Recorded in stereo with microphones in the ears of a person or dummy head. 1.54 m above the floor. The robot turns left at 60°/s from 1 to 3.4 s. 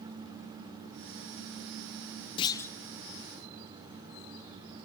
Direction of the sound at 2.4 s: 35° left (ahead or behind).